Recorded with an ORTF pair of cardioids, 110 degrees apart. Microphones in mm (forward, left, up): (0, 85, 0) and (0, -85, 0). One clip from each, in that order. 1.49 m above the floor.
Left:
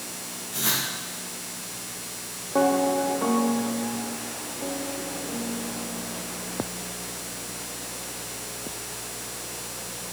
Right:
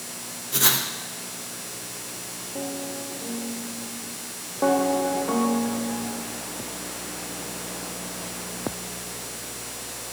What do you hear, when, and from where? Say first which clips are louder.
0.5 s writing: right 4 dB; 65° right, 1.0 m